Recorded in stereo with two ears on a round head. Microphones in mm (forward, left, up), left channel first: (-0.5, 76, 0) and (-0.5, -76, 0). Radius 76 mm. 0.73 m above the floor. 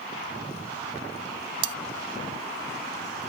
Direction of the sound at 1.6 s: 70° right (ahead or behind).